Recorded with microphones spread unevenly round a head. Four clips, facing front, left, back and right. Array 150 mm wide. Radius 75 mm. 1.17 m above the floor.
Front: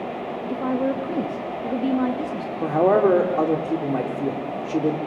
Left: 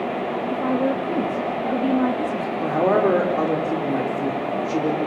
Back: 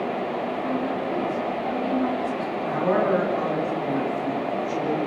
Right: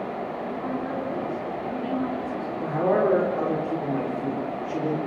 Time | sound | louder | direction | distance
0.5 | a woman speaking | left 10 dB, front 2 dB | 50° left | 2 m
2.6 | a man speaking | left 3 dB, front 6 dB | 15° left | 3 m